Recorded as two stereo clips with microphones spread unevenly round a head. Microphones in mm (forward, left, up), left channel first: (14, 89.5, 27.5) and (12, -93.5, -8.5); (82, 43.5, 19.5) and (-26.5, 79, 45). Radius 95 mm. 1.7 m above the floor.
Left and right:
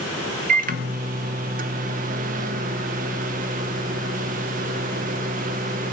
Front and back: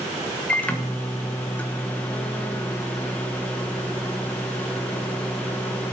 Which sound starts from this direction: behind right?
A microwave, at 0.5 s.